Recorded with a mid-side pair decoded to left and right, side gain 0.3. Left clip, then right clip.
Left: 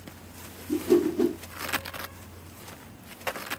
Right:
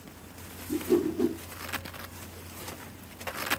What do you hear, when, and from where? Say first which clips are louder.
0.7 s a whoosh: left 4 dB; 50° left, 1.1 m